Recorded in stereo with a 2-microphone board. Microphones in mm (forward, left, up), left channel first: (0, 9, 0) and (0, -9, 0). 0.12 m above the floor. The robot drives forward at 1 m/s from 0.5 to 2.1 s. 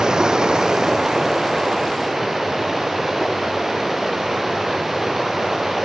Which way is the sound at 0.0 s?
35° right (ahead or behind).